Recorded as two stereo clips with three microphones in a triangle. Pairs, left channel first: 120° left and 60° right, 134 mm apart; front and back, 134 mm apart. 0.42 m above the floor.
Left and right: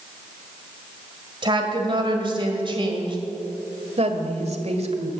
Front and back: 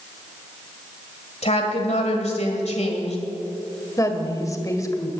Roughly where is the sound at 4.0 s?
Ahead right.